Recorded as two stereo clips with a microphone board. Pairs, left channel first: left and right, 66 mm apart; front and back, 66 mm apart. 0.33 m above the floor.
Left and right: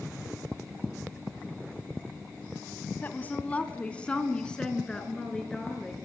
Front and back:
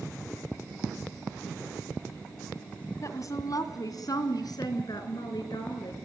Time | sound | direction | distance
3.0 | a woman speaking | 30° left | 2 m